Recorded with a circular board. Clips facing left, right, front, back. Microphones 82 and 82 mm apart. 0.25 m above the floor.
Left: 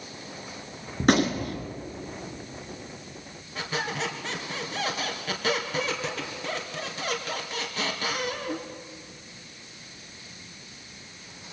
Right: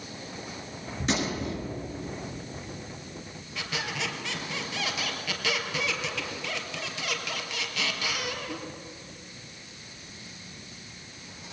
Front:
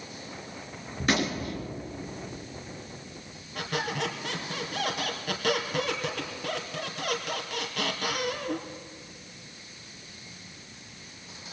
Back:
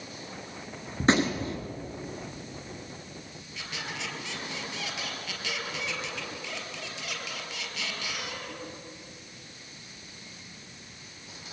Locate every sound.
1.0 s a gunshot: 120° left, 2.5 m
3.5 s a squeak: 35° left, 3 m